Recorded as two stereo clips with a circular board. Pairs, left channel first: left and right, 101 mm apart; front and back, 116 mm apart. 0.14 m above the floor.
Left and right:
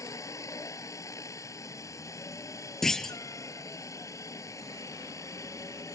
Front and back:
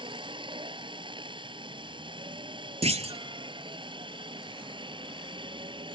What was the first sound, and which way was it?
A helicopter, 145° left.